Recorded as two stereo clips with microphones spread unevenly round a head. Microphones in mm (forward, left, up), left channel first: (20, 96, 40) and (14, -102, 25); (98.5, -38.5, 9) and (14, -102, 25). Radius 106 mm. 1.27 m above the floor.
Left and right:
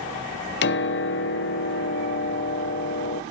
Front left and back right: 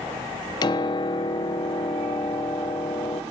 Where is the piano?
75° left, 1.0 m.